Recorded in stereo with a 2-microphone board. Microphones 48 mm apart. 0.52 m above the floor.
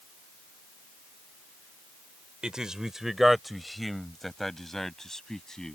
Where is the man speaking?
20° right (ahead or behind); by 5.8 s 10° left (ahead or behind).